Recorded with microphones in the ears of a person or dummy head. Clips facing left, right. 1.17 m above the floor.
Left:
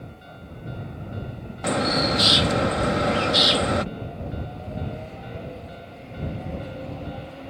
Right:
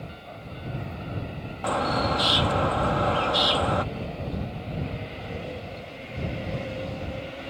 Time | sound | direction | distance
1.6 | a bird | 25° left (ahead or behind) | ?